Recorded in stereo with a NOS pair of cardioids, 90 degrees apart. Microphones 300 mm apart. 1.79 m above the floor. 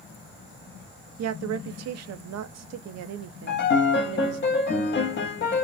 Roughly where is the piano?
Ahead left.